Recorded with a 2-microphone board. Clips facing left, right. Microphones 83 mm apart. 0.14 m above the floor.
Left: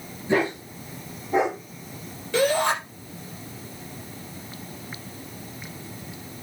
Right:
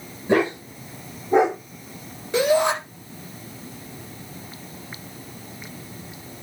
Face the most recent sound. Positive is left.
turn(degrees=-20)  # may be behind; listen again after turning